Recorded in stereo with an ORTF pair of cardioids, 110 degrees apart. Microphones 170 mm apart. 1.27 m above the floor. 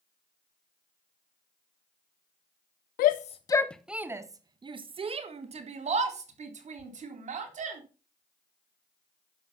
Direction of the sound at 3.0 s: 65° left.